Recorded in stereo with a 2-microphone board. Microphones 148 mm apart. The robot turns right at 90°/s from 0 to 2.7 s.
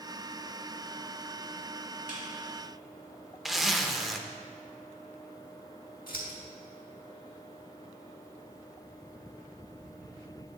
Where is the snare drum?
65° left (ahead or behind), 2 m; by 2.2 s 75° left (ahead or behind), 2 m.